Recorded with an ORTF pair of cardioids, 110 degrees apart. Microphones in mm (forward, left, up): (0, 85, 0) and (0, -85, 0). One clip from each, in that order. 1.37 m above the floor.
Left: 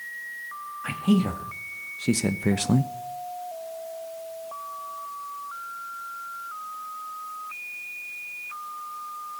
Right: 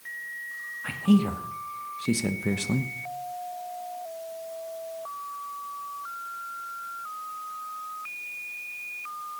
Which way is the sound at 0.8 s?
10° left.